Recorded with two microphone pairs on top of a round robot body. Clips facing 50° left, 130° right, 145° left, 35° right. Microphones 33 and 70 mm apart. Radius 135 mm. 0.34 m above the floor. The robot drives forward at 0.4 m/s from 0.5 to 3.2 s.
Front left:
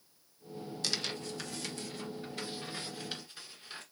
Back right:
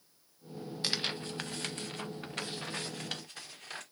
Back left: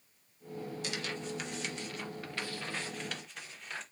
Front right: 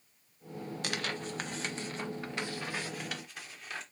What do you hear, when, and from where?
0.8 s tearing paper: 65° right, 0.9 m; by 3.8 s 125° right, 1.0 m